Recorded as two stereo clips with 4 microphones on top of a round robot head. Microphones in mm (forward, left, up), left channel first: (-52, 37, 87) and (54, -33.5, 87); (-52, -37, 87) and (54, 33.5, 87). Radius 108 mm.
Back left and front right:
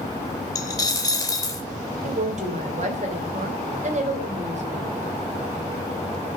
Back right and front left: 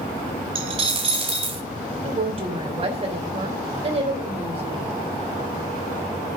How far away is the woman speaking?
About 3 m.